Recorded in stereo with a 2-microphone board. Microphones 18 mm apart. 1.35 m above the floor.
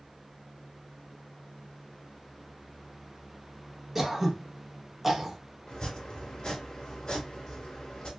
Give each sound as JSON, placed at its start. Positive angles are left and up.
{"t": 4.0, "sound": "throat clearing", "side_deg": -5, "distance_m": 0.8}
{"t": 5.7, "sound": "chopping", "side_deg": 50, "distance_m": 1.7}